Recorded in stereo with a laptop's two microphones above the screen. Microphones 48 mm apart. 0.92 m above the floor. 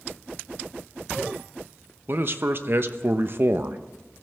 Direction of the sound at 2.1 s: 45° right (ahead or behind).